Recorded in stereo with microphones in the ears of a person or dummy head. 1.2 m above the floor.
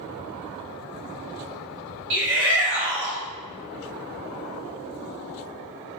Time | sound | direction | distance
2.1 | a shout | 60° right (ahead or behind) | 1.6 m